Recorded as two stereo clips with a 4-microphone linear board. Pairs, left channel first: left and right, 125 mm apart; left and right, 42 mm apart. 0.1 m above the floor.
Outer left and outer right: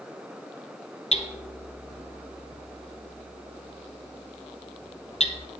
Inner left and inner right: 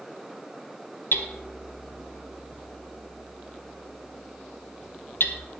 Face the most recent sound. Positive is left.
turn(degrees=60)  # may be behind; listen again after turning